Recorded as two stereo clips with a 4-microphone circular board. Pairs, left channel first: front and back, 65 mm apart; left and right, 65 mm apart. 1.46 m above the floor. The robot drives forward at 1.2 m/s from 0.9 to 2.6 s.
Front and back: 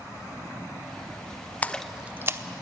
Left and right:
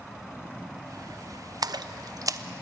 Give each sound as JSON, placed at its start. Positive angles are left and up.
{"t": 1.6, "sound": "a splash", "azimuth_deg": -65, "distance_m": 0.8}